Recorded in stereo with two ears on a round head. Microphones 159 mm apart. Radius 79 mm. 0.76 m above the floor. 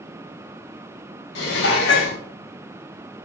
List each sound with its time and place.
1.4 s dishes clattering: 65° left (ahead or behind), 0.9 m